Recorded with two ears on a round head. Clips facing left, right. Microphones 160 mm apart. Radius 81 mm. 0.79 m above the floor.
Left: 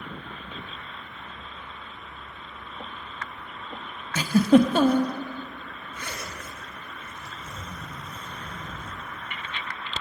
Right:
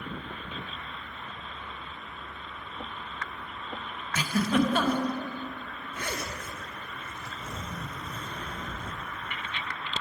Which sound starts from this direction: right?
A zipper, at 5.9 s.